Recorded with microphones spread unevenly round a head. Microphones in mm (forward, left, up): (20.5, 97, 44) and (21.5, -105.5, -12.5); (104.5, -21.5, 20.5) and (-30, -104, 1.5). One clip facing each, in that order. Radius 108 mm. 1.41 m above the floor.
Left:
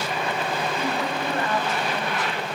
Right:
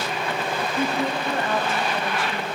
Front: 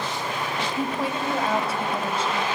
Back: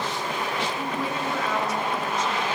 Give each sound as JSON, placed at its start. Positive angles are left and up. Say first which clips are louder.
{"t": 0.8, "sound": "a woman speaking", "louder": "right 2 dB, front 2 dB", "azimuth_deg": -25, "distance_m": 1.4}